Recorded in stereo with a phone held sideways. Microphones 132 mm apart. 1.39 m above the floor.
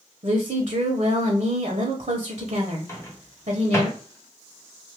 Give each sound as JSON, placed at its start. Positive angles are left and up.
{"t": 0.2, "sound": "a woman speaking", "side_deg": -65, "distance_m": 0.9}
{"t": 2.9, "sound": "a microwave", "side_deg": 20, "distance_m": 0.8}